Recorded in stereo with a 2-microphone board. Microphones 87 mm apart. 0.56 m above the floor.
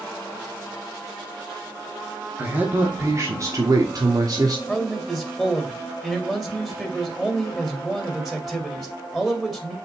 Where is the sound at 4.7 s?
Centre (ahead or behind), 2.5 m.